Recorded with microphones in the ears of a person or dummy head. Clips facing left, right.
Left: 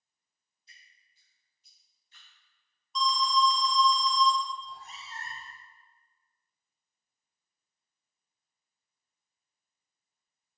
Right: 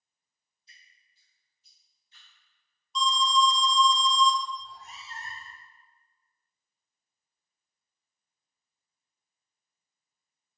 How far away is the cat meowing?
About 1.5 m.